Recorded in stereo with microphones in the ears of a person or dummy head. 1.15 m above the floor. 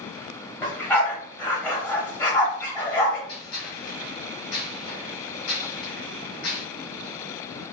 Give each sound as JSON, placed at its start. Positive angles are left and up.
{"t": 0.6, "sound": "a dog barking", "side_deg": 10, "distance_m": 1.0}
{"t": 3.3, "sound": "a gunshot", "side_deg": 60, "distance_m": 2.0}